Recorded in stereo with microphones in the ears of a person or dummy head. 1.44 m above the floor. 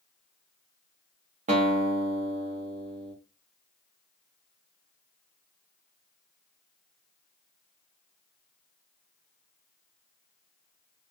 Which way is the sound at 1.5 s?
40° right (ahead or behind).